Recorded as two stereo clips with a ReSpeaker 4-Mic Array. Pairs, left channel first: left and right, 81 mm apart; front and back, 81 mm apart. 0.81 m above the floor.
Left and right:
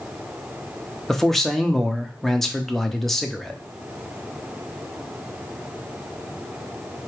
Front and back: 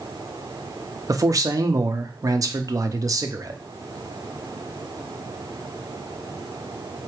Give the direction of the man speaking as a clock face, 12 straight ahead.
6 o'clock.